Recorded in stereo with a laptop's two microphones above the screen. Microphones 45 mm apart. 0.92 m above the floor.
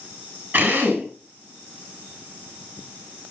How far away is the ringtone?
I don't hear a ringtone.